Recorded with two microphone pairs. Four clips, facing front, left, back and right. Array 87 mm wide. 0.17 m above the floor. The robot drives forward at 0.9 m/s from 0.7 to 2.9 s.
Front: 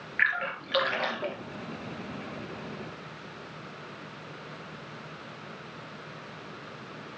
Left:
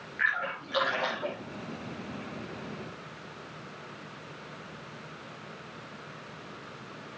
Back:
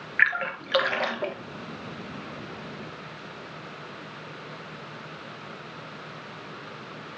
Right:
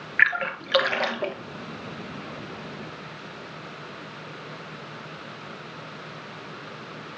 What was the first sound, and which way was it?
A splash, 130° right.